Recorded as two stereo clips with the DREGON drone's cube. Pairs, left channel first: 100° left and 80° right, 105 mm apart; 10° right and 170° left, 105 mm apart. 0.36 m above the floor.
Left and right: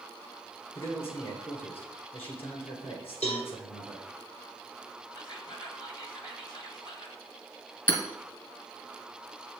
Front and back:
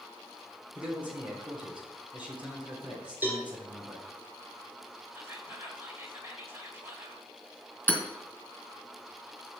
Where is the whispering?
110° left, 2 m.